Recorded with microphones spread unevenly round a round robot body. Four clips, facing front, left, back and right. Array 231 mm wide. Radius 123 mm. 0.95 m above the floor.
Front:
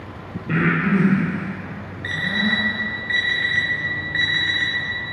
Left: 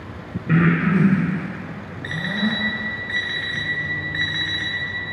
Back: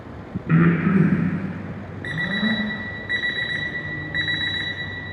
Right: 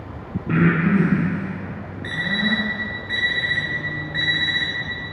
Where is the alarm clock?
170° right, 0.9 m.